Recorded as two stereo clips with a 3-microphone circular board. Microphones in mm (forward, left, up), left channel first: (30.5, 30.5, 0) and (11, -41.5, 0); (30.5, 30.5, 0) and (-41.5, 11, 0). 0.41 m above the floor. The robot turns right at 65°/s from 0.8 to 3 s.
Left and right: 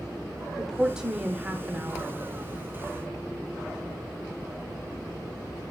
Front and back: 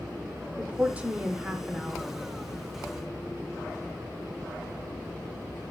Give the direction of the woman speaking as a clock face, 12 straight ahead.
6 o'clock.